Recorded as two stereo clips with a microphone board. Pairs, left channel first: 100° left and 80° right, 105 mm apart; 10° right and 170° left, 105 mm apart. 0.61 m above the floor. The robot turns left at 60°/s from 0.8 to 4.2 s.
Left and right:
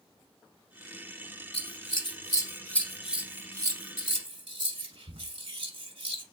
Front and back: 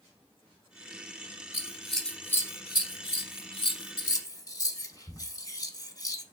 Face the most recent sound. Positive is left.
turn(degrees=-60)